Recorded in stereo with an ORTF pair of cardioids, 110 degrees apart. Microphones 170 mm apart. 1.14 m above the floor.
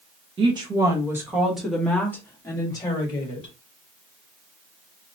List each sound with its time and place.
0.4 s a woman speaking: 30° right, 1.3 m; by 3.5 s 35° left, 1.8 m